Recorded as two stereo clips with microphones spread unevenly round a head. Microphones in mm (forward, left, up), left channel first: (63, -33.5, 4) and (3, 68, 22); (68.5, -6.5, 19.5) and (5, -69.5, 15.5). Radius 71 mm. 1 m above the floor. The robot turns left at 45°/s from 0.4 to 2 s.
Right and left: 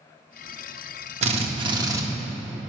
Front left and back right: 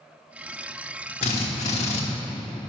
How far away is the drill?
About 1.0 m.